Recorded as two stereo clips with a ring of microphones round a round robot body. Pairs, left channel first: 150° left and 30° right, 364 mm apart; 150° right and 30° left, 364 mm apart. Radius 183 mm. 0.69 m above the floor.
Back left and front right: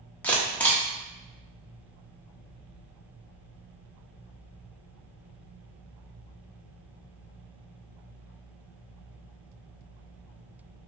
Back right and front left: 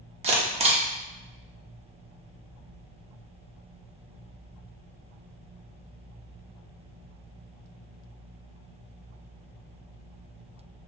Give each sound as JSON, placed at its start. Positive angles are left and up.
{"t": 0.2, "sound": "a camera shutter", "azimuth_deg": 70, "distance_m": 0.9}